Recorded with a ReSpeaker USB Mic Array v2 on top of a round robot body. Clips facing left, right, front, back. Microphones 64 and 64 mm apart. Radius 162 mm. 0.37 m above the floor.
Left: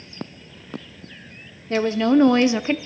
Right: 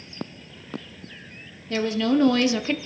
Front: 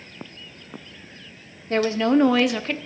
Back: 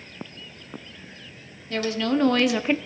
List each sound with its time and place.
1.7 s a woman speaking: 45° left, 1.2 m; by 2.8 s 140° left, 0.9 m